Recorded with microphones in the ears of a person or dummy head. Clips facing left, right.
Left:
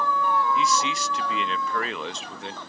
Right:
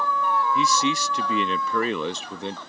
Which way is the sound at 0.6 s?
80° right.